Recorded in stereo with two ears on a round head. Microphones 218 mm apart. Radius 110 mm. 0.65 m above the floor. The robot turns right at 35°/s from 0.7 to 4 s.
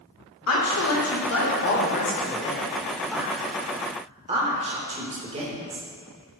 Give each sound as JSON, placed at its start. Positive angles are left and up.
{"t": 0.5, "sound": "a woman speaking", "side_deg": 70, "distance_m": 1.6}